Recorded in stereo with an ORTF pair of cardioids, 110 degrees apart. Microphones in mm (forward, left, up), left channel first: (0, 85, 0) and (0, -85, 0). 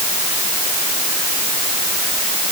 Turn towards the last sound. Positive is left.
No sound to turn to.